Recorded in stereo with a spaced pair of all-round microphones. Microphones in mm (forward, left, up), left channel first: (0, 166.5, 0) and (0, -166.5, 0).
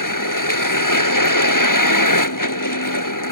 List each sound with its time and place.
0.0 s a vehicle: 60° left (ahead or behind)